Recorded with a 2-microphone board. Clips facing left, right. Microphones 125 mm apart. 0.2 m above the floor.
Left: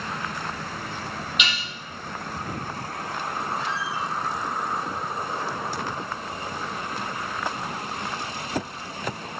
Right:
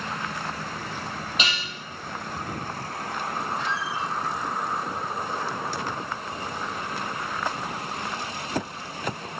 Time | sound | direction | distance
1.4 | dishes clattering | 35° right (ahead or behind) | 4 m
3.6 | a squeak | 40° left (ahead or behind) | 3 m